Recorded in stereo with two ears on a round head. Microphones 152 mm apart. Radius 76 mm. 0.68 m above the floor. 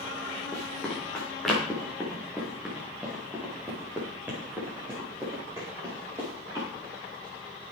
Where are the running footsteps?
10° left (ahead or behind), 4 m; by 6.7 s 20° right (ahead or behind), 6.5 m.